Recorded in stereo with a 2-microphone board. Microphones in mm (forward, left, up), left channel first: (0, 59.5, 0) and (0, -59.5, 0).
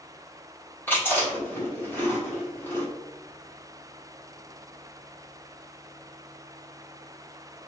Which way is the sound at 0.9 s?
15° left (ahead or behind).